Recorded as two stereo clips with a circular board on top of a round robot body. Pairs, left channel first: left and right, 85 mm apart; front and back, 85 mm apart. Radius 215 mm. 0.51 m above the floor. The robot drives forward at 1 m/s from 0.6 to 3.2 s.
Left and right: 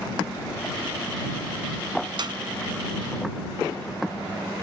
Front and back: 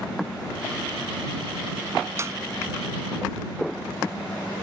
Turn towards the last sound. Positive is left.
turn(degrees=-130)